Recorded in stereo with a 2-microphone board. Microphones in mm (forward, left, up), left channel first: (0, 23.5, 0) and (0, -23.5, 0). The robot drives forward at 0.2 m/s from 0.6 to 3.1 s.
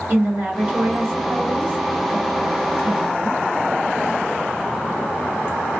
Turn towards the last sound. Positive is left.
turn(degrees=-45)  # may be behind; listen again after turning